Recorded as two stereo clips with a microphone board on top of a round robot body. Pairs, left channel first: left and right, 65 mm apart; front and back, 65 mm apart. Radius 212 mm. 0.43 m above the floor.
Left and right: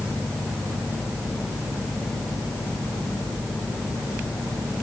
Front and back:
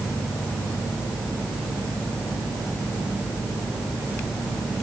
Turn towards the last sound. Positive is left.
No sound to turn to.